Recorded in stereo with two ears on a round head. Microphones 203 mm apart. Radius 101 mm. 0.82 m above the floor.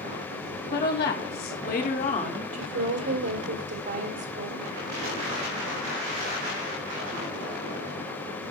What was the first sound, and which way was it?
A woman speaking, 45° left (ahead or behind).